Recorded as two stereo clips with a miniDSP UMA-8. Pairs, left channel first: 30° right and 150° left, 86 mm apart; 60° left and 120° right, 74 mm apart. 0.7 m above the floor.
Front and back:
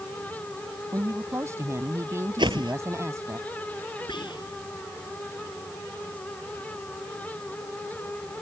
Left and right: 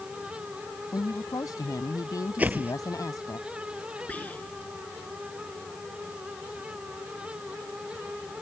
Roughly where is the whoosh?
Behind.